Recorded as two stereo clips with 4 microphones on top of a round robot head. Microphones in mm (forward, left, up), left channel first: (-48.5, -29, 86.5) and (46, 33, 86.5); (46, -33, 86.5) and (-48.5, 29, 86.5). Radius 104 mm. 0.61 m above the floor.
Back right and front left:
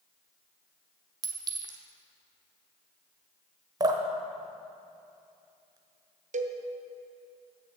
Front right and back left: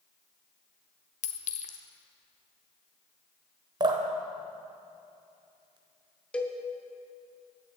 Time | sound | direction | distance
1.2 | a clink | 20° right | 0.9 m
3.8 | dripping | 90° left | 0.8 m
6.3 | a cowbell | 45° left | 0.8 m